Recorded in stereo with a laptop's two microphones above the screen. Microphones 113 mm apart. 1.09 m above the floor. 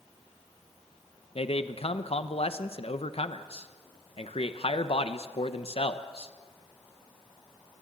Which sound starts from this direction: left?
A man speaking, at 1.4 s.